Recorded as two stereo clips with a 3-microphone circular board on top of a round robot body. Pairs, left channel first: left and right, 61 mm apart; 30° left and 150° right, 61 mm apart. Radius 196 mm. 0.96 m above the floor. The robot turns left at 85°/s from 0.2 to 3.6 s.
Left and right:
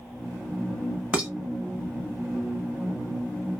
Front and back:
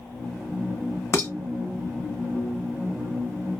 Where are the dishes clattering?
20° right, 0.7 m; by 1.3 s 35° right, 0.7 m.